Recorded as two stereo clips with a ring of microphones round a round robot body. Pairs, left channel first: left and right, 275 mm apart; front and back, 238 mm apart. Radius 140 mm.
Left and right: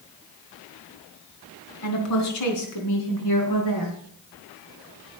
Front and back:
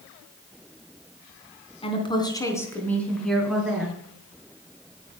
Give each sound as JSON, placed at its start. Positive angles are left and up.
{"t": 1.8, "sound": "a woman speaking", "azimuth_deg": 65, "distance_m": 3.5}